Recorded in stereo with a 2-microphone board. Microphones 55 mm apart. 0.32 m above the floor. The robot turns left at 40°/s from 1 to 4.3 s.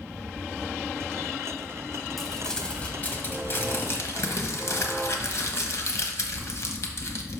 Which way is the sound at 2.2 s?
Straight behind.